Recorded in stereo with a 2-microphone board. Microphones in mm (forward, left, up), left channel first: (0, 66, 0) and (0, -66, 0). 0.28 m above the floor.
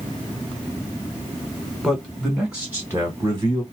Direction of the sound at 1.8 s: 5° left (ahead or behind).